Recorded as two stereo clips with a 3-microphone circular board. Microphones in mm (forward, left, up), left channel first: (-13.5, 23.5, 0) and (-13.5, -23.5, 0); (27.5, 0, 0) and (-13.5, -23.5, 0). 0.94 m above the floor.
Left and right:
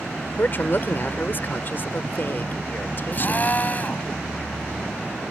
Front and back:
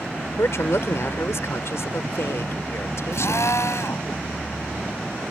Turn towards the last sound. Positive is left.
turn(degrees=35)